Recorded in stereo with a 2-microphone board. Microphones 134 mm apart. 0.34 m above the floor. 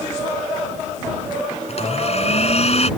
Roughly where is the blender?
Left.